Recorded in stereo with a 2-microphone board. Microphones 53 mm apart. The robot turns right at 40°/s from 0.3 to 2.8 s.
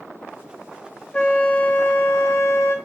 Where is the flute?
20° left, 0.9 m; by 2.8 s 85° left, 0.9 m.